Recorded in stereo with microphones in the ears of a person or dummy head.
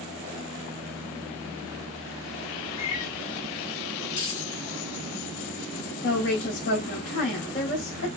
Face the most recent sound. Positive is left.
turn(degrees=50)  # may be behind; listen again after turning